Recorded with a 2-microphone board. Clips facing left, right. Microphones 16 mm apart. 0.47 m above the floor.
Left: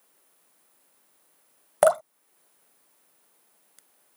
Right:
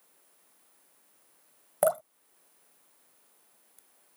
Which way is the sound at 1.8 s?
45° left (ahead or behind).